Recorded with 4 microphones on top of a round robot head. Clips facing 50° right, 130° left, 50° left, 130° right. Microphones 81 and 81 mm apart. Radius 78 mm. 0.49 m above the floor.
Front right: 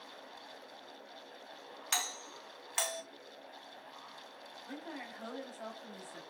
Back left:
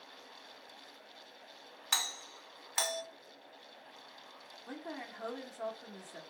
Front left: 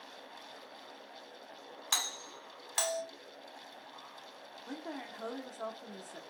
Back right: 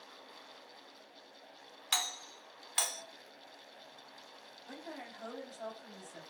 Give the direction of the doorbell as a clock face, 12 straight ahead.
10 o'clock.